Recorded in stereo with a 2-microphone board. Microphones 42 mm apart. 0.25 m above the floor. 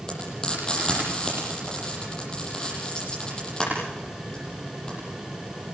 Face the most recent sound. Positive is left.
turn(degrees=20)  # may be behind; listen again after turning